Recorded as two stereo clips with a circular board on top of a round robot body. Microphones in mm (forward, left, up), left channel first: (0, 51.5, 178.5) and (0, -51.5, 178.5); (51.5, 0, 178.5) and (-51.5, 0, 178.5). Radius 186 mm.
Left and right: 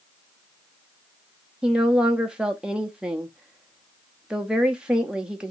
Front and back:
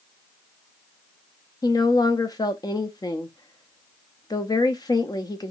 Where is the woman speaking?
15° right, 1.0 m.